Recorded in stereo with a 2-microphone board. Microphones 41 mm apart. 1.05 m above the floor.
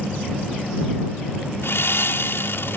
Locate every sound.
1.6 s sawing: 80° left